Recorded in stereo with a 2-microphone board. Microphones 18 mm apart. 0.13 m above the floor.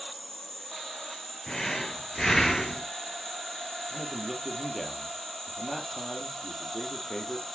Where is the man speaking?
5° right (ahead or behind), 2.5 m.